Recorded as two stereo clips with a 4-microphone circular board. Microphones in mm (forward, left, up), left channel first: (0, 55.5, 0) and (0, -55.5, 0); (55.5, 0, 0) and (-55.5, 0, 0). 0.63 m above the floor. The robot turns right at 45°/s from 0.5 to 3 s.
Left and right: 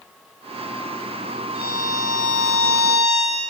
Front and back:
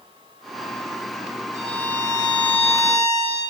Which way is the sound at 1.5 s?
120° right.